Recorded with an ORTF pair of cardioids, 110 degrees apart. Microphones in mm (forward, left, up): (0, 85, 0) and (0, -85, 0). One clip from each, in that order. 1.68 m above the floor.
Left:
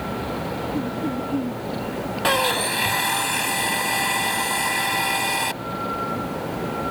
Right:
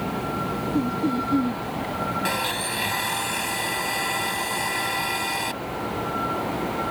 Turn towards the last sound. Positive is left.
turn(degrees=25)